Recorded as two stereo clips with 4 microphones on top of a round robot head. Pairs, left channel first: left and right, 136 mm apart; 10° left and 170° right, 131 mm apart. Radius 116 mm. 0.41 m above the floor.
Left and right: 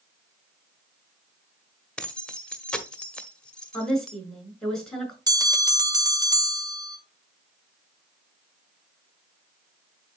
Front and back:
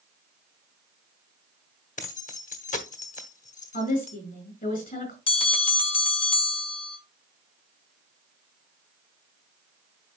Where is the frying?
I don't hear frying.